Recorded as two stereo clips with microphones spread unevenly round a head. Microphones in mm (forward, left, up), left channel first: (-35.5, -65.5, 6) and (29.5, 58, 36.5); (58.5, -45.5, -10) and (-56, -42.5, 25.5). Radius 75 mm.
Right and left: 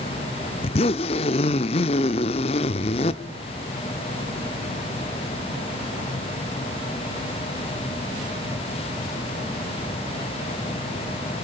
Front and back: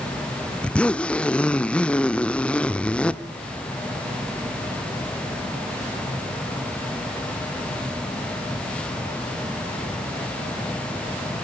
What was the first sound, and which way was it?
A zipper, 110° right.